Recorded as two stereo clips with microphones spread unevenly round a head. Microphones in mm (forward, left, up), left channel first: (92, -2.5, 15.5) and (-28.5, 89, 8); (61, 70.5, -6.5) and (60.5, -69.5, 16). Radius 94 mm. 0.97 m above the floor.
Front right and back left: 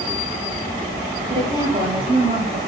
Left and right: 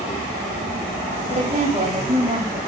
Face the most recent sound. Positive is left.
turn(degrees=-155)